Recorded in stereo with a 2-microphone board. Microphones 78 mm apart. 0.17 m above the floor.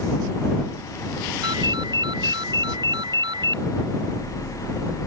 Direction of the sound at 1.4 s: 70° right (ahead or behind).